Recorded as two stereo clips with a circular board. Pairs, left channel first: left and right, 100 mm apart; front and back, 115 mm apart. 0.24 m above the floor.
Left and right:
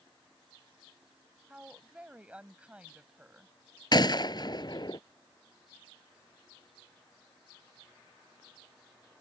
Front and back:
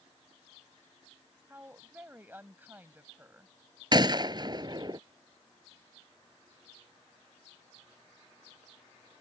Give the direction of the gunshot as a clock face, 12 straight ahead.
8 o'clock.